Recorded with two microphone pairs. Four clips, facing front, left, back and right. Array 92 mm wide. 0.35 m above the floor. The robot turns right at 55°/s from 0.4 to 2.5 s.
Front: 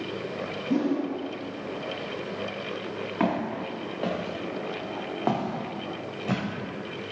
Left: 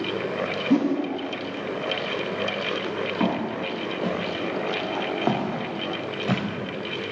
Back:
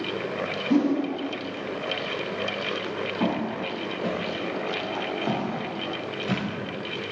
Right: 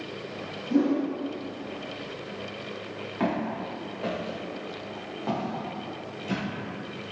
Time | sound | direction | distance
0.7 | a whoosh | 130° left | 0.7 m
3.2 | footsteps | 5° left | 1.8 m